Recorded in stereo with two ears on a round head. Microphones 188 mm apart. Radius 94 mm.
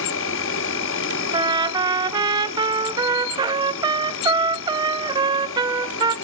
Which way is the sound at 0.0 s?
65° left (ahead or behind).